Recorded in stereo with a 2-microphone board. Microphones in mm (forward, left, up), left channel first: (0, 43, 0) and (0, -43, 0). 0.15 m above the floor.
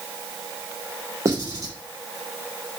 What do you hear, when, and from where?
1.2 s writing: 35° right (ahead or behind), 2.5 m